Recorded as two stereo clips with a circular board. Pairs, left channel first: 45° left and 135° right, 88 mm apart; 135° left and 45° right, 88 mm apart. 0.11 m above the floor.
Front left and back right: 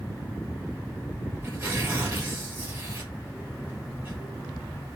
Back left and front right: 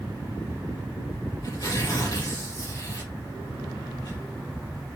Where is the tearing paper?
170° left, 2.5 m.